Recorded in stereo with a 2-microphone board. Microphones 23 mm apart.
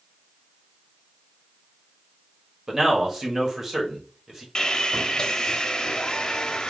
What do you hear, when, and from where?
2.7 s a man speaking: 20° right (ahead or behind), 1.3 m
4.5 s sawing: 40° left (ahead or behind), 0.7 m